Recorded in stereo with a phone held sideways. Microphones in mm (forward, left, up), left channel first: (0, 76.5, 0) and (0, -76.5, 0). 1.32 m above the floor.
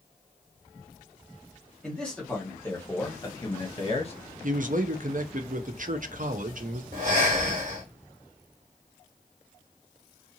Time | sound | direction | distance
1.8 | a man speaking | 5° left (ahead or behind) | 1.5 m
4.4 | a man speaking | 60° right (ahead or behind) | 0.5 m
6.9 | breathing | 60° right (ahead or behind) | 1.5 m